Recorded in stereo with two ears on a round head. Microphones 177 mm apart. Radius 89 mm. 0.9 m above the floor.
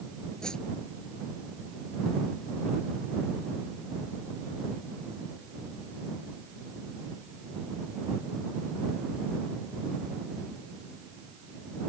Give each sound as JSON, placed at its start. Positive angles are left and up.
{"t": 0.4, "sound": "a whoosh", "side_deg": 5}